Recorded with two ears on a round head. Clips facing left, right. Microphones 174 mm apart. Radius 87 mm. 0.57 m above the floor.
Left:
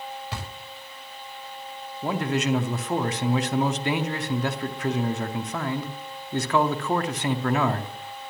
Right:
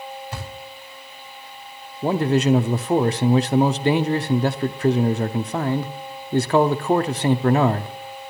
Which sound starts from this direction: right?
A man speaking, at 2.0 s.